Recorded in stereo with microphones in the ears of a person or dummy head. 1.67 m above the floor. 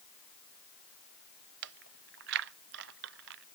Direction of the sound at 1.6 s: 60° right (ahead or behind).